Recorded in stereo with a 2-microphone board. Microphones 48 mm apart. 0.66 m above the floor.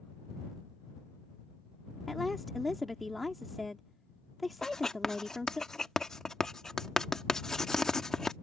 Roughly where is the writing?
Centre.